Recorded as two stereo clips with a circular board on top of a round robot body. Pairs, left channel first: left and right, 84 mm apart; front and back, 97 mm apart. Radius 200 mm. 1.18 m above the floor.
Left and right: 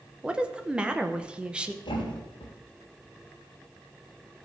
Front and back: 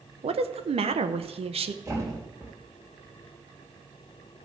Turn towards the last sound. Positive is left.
turn(degrees=120)